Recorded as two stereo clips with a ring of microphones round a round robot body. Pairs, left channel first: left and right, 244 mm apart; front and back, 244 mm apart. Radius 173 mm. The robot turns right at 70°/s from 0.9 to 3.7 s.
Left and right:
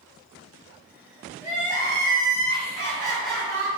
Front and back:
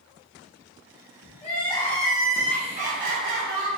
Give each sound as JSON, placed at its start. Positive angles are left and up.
{"t": 1.4, "sound": "crying", "azimuth_deg": 45, "distance_m": 1.1}